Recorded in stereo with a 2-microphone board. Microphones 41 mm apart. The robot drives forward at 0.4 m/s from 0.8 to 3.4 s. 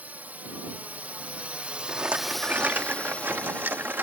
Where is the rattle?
40° right (ahead or behind); by 4.0 s 55° right (ahead or behind).